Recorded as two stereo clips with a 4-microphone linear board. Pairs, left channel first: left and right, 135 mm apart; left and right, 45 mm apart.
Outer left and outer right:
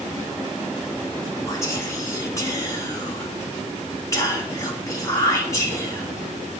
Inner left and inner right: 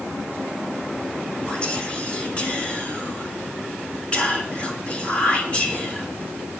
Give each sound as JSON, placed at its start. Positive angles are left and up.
{"t": 1.5, "sound": "whispering", "side_deg": 25, "distance_m": 3.0}